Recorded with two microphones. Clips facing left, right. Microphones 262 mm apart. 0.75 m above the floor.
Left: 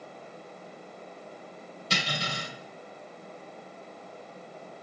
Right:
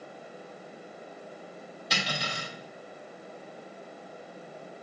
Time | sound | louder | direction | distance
1.9 | cutlery clinking | left 1 dB | 25° left (ahead or behind) | 2.5 m